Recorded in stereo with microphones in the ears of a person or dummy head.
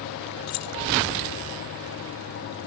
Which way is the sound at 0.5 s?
85° left.